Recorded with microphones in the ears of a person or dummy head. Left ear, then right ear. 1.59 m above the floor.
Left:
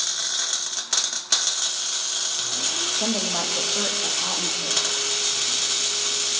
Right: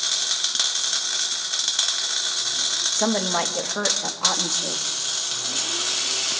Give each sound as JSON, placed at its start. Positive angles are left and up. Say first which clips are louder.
{"t": 3.0, "sound": "a woman speaking", "louder": "right 2 dB", "side_deg": -55, "distance_m": 2.0}